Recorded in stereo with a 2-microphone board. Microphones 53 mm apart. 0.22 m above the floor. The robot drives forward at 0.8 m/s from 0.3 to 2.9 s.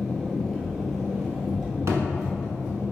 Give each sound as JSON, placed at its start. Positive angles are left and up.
{"t": 0.0, "sound": "an engine running", "side_deg": 15, "distance_m": 0.8}
{"t": 1.9, "sound": "a thud", "side_deg": -65, "distance_m": 0.9}